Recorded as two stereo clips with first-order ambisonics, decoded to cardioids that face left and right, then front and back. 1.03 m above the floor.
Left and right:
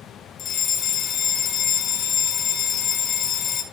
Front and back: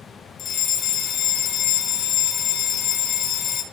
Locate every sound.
0.4 s a fire alarm: 45° left, 1.5 m